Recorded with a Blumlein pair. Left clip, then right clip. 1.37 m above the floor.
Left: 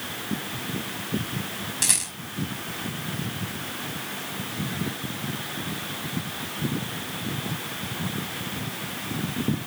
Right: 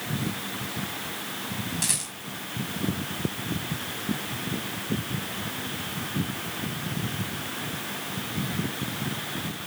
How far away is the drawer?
I don't hear a drawer.